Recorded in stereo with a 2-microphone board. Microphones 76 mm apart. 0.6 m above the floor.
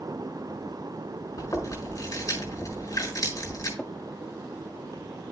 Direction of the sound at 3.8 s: Centre (ahead or behind).